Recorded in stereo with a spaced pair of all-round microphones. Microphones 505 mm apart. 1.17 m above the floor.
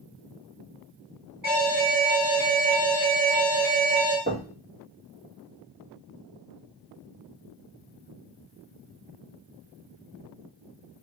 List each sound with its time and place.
1.4 s an alarm: 35° right (ahead or behind), 2 m
4.3 s knocking: 20° right (ahead or behind), 1.0 m